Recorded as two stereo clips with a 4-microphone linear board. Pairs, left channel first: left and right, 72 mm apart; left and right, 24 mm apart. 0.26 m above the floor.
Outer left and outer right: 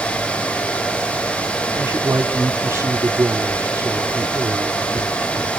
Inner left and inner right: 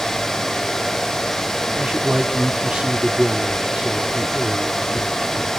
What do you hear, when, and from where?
1.7 s a man speaking: 30° right (ahead or behind), 1.5 m